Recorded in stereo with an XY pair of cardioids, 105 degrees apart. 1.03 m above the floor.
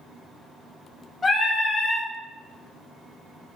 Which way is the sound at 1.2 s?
35° left.